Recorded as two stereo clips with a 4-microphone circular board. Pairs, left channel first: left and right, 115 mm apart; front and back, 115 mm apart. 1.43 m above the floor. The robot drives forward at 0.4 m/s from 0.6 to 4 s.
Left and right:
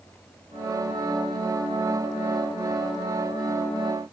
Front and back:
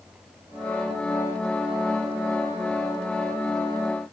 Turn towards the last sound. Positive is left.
No sound to turn to.